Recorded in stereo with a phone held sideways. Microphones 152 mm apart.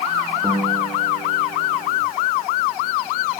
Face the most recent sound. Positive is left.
turn(degrees=-25)  # may be behind; listen again after turning